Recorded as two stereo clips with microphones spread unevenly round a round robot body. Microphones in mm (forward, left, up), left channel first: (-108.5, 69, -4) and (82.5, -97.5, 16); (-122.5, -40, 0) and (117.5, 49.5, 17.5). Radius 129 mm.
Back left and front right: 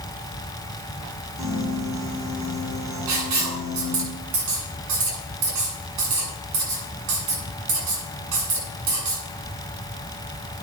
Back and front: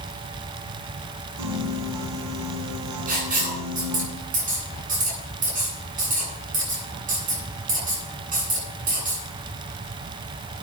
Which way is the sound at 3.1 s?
40° right.